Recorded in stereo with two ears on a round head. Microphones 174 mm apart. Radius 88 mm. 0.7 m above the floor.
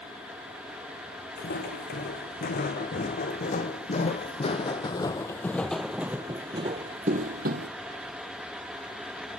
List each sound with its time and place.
1.4 s footsteps: 50° left (ahead or behind), 3.5 m; by 7.7 s 55° right (ahead or behind), 1.5 m